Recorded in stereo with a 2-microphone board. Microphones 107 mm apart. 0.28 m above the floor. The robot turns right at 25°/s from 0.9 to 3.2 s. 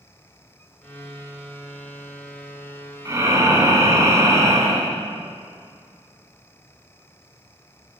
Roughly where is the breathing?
Right.